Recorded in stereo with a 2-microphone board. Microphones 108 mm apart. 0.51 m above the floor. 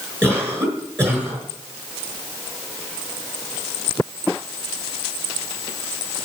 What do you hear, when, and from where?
0.2 s a cough: 25° right (ahead or behind), 6 m